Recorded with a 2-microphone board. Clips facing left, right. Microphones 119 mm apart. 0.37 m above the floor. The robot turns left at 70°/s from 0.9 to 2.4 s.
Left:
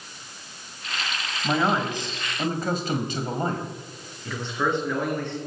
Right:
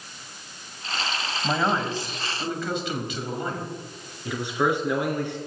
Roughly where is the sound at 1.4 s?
Behind.